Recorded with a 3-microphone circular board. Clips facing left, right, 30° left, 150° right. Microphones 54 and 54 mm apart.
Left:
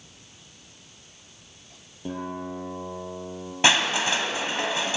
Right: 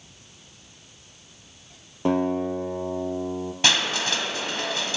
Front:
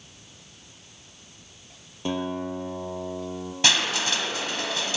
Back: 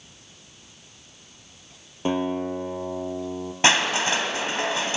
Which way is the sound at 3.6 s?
155° left.